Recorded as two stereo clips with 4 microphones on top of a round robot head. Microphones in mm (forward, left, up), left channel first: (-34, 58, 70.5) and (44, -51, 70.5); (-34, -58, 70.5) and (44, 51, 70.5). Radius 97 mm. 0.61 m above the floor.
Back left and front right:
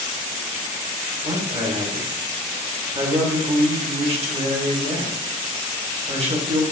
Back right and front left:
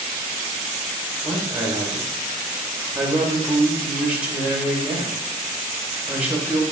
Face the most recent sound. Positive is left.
turn(degrees=-25)